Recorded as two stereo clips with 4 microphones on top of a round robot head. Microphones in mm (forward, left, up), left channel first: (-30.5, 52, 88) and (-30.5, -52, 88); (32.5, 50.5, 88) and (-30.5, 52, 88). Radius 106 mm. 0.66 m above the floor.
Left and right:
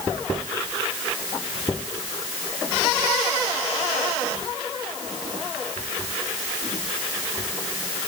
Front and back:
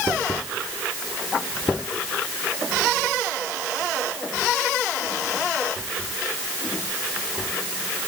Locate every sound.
Only background noise.